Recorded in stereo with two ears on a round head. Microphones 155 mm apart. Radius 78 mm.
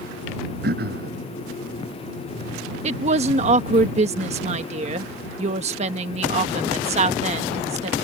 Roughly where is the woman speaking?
Right.